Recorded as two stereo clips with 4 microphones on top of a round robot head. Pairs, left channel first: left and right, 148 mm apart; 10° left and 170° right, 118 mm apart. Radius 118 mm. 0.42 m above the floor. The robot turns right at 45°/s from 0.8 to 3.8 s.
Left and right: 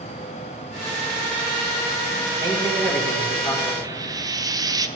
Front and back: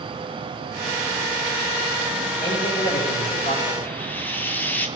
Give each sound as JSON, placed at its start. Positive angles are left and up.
{"t": 2.4, "sound": "a man speaking", "azimuth_deg": -30, "distance_m": 3.5}
{"t": 3.8, "sound": "frying", "azimuth_deg": -50, "distance_m": 0.9}